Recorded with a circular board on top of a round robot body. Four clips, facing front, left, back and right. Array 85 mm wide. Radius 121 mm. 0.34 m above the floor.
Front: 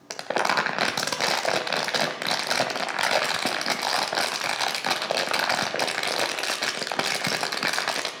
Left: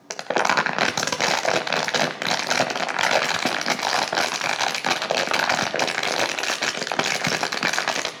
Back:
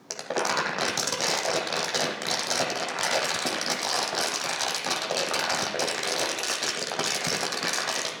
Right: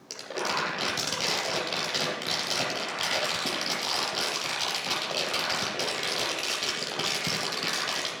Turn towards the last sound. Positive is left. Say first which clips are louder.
# left 10 dB, front 3 dB
turn(degrees=70)